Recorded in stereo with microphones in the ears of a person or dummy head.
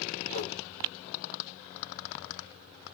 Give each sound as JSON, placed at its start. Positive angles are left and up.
{"t": 0.3, "sound": "a whoosh", "side_deg": 80, "distance_m": 1.1}